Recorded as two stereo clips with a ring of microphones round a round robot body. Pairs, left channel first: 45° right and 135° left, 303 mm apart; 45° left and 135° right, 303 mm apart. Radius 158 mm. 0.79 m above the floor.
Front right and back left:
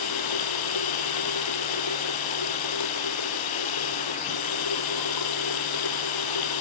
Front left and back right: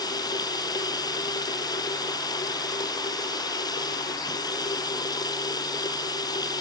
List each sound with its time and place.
0.0 s running water: 35° right